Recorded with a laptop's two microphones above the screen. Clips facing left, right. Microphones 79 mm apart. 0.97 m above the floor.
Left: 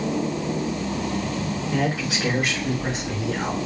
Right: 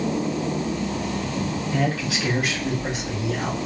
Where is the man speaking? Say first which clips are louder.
Left 1 dB; 20° left (ahead or behind), 2.5 m; by 3.6 s 35° left (ahead or behind), 3 m.